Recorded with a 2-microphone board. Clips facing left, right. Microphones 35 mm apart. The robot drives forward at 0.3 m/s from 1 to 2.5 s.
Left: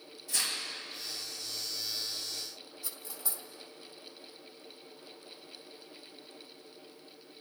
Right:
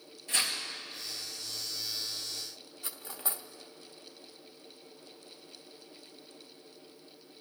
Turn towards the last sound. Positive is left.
turn(degrees=-45)  # may be behind; listen again after turning